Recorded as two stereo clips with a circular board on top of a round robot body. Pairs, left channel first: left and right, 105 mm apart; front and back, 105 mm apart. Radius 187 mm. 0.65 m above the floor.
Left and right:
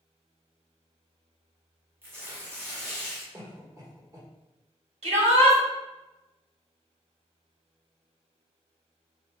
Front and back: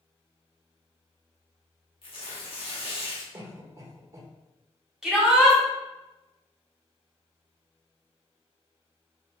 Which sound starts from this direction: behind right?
A cough, at 3.3 s.